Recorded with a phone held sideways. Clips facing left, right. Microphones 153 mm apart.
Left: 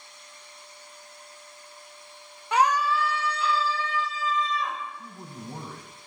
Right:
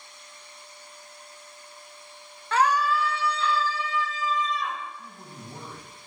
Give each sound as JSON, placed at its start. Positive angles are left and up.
{"t": 2.5, "sound": "a scream", "side_deg": 15, "distance_m": 0.5}
{"t": 5.0, "sound": "a man speaking", "side_deg": 65, "distance_m": 4.0}